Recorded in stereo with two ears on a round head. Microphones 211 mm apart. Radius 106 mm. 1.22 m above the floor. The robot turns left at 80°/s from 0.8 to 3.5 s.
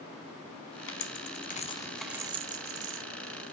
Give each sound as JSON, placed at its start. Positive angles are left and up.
{"t": 0.9, "sound": "a dropped coin", "side_deg": 55, "distance_m": 0.8}